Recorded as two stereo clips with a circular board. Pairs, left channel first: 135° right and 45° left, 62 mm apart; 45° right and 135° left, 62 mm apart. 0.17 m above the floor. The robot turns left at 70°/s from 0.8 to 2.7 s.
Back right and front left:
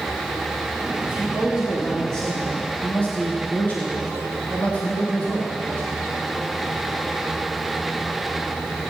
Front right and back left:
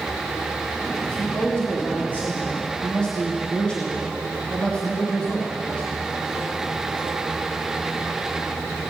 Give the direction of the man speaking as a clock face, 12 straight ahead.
12 o'clock.